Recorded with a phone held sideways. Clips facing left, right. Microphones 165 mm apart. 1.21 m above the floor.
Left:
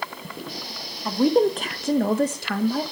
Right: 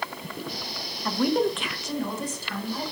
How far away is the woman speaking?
About 0.7 m.